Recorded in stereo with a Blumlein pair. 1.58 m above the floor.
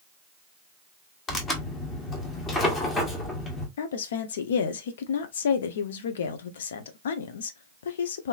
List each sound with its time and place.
1.3 s tearing paper: 20° left, 1.4 m
3.8 s a woman speaking: 60° left, 0.7 m